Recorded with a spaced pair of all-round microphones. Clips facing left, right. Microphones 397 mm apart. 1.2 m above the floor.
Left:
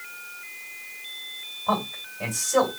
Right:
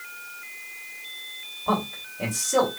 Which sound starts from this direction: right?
A man speaking, at 1.7 s.